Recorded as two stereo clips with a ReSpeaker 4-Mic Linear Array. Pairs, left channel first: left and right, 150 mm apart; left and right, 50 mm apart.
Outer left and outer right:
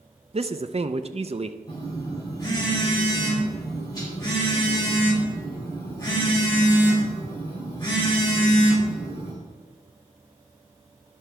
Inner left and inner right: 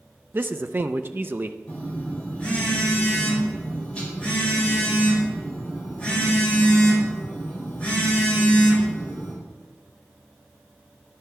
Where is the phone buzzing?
25° left (ahead or behind), 4 m.